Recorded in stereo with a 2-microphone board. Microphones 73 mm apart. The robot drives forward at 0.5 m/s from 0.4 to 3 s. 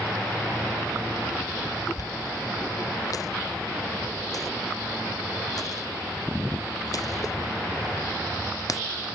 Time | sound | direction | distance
2.0 | a dropped coin | 55° left (ahead or behind) | ?